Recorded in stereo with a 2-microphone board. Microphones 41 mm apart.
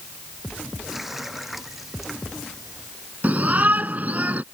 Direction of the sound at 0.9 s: 5° right (ahead or behind).